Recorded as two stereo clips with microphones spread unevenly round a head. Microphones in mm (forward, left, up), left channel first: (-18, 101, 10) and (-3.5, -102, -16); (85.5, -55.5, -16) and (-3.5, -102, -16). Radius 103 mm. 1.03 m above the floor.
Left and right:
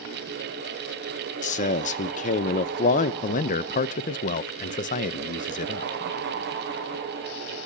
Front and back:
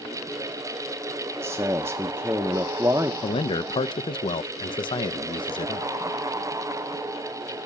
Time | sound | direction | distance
1.4 | a man speaking | 140° left | 0.8 m
3.2 | a man speaking | 45° left | 0.6 m